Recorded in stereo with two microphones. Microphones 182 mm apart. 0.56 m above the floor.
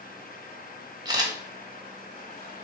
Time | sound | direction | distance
1.1 | a camera shutter | 20° right (ahead or behind) | 0.9 m